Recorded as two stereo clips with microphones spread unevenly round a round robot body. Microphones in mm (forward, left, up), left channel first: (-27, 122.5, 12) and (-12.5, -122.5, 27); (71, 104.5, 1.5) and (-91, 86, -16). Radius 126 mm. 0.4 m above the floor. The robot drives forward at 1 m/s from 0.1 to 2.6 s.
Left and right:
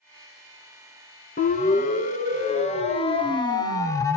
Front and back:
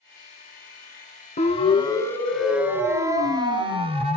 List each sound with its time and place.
1.4 s a siren: 45° left, 3 m; by 4.2 s 165° left, 2.5 m